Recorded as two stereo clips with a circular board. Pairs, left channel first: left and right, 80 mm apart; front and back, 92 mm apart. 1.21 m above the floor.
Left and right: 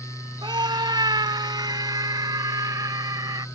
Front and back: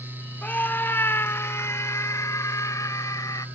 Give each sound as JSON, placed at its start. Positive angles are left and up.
{"t": 0.4, "sound": "a scream", "azimuth_deg": -70}